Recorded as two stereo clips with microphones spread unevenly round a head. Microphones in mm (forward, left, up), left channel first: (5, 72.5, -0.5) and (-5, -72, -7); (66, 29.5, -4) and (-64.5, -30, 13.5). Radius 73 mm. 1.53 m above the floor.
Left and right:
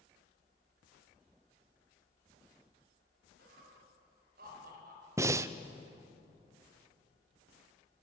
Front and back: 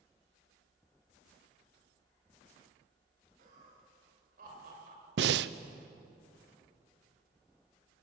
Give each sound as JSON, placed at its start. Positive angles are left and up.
{"t": 3.4, "sound": "laughter", "azimuth_deg": -120, "distance_m": 6.5}
{"t": 5.2, "sound": "breathing", "azimuth_deg": -165, "distance_m": 0.7}